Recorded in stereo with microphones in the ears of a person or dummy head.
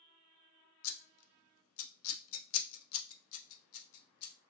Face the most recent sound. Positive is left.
turn(degrees=75)  # may be behind; listen again after turning